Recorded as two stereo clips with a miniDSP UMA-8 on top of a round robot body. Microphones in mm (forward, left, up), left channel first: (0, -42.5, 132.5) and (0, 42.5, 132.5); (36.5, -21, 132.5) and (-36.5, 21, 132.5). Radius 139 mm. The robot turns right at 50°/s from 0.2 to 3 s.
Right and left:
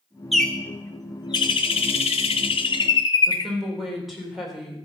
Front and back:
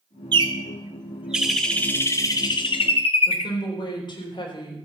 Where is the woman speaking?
Straight ahead, 4 m.